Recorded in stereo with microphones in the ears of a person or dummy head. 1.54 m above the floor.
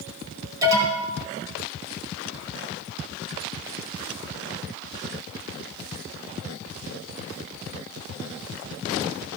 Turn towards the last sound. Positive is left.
turn(degrees=-25)  # may be behind; listen again after turning